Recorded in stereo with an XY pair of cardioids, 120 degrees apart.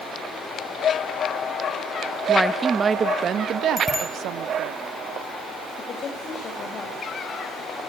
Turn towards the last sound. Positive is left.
turn(degrees=45)